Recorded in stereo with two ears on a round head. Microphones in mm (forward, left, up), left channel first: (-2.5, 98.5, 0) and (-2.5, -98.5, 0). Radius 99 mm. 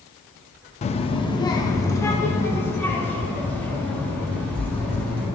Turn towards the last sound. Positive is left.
turn(degrees=5)  # may be behind; listen again after turning